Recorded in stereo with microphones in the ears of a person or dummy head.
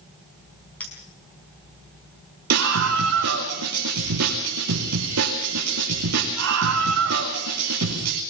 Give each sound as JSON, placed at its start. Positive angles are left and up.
{"t": 0.8, "sound": "a clink", "side_deg": 10, "distance_m": 5.0}
{"t": 2.5, "sound": "a scream", "side_deg": -80, "distance_m": 4.5}